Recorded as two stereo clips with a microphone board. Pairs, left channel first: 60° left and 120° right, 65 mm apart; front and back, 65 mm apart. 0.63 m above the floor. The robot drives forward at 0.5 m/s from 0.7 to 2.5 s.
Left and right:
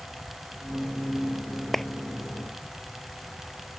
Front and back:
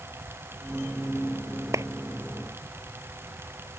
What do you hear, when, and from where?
1.7 s a clap: 145° left